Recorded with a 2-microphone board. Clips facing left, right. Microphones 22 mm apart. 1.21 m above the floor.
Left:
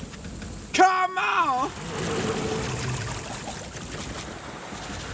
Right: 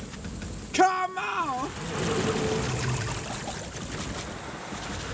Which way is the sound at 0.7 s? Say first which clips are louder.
Left 4 dB; 20° left (ahead or behind).